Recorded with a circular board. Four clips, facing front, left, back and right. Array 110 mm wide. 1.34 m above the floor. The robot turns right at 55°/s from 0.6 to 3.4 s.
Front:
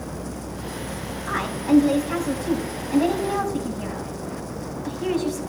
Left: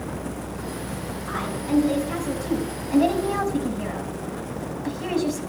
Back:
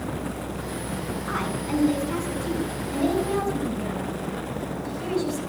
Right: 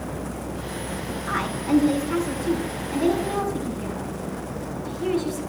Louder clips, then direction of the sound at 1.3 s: Right 3 dB, front 9 dB; 35° right.